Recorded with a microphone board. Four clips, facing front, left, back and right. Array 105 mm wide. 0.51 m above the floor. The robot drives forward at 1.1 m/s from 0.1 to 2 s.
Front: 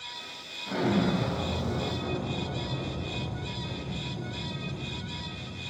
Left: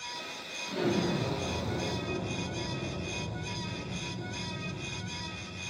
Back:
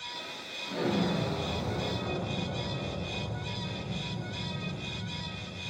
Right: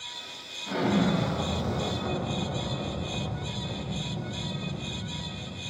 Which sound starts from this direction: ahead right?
An explosion, at 0.7 s.